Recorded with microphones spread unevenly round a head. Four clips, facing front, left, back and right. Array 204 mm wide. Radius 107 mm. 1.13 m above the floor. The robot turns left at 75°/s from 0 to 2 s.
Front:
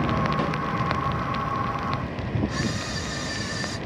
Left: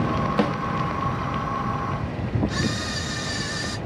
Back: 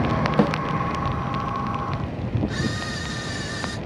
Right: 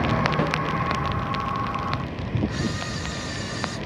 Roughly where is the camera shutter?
Behind left.